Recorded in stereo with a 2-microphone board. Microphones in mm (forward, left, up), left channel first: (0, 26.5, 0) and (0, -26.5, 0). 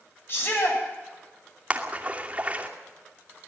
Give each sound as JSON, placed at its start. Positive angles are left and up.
{"t": 0.3, "sound": "a shout", "side_deg": 45, "distance_m": 9.5}
{"t": 1.7, "sound": "a splash", "side_deg": -30, "distance_m": 2.5}